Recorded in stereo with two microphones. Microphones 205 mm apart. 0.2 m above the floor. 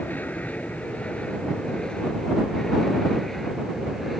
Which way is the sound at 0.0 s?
10° left (ahead or behind).